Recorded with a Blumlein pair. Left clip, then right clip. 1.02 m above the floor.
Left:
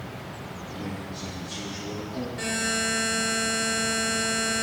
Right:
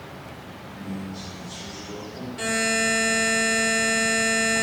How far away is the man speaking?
About 3.5 m.